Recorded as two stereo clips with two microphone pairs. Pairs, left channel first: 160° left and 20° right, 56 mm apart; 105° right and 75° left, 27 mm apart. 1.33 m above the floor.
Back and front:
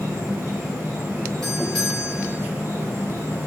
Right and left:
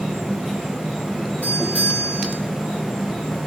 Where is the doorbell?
120° right, 1.9 m.